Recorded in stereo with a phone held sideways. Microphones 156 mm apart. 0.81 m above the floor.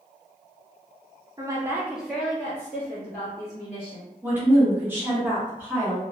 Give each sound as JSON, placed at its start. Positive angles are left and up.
{"t": 1.4, "sound": "a woman speaking", "side_deg": -25, "distance_m": 0.6}
{"t": 4.2, "sound": "a woman speaking", "side_deg": -15, "distance_m": 0.9}